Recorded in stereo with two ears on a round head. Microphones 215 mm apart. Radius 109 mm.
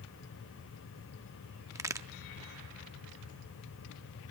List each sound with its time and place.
1.8 s a crack: 15° right (ahead or behind), 0.6 m